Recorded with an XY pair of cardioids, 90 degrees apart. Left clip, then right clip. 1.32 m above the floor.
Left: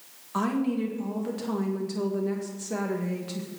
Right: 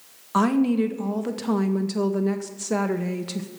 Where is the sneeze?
I don't hear a sneeze.